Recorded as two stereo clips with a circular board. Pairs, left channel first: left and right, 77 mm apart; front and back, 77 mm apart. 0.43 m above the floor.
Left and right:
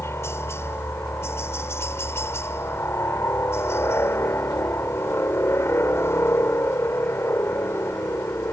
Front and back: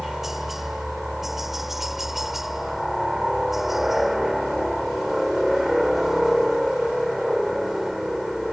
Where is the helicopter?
95° left.